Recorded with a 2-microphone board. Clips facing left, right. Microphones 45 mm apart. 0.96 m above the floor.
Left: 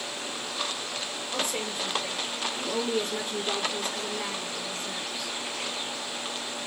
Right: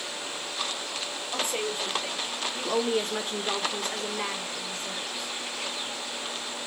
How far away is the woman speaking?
About 1.5 m.